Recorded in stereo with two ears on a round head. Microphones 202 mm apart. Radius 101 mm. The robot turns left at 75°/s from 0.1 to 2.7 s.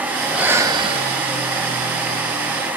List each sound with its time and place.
0.2 s breathing: straight ahead, 0.6 m; by 1.2 s 75° right, 0.6 m